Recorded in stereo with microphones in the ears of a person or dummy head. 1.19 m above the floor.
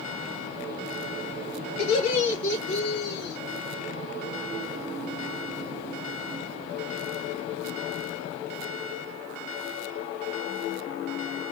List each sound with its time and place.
1.8 s laughter: 70° left (ahead or behind), 3 m; by 3.4 s 60° left (ahead or behind), 3.5 m